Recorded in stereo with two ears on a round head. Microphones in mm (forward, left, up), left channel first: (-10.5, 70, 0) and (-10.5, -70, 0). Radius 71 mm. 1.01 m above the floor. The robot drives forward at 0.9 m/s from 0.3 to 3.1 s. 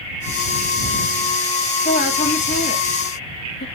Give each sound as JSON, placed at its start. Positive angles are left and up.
{"t": 1.9, "sound": "a woman speaking", "side_deg": 45, "distance_m": 2.5}